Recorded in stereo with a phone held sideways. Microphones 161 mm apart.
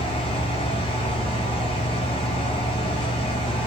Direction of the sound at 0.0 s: 35° left (ahead or behind).